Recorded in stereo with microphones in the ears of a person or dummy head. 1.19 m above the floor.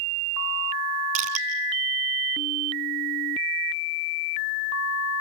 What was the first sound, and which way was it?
Crushing, 40° right (ahead or behind).